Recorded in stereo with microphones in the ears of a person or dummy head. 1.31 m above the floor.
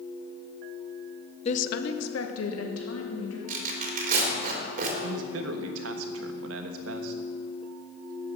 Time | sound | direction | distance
1.4 | a woman speaking | 35° left (ahead or behind) | 0.8 m
3.5 | tearing paper | 45° right (ahead or behind) | 3.5 m
5.0 | a man speaking | 85° right | 1.3 m